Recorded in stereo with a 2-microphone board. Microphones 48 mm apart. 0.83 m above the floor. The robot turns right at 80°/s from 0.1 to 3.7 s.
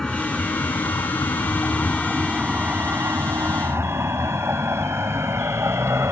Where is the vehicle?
15° left (ahead or behind); by 6.1 s 80° right.